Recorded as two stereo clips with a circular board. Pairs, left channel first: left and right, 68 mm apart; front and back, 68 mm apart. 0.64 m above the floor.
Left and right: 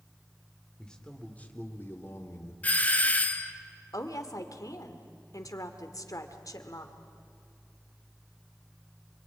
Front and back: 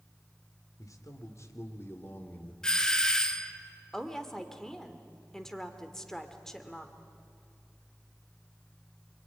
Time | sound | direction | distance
0.8 | a man speaking | 10° left | 2.5 m
2.6 | a doorbell | 65° left | 1.1 m
3.9 | a woman speaking | 80° left | 2 m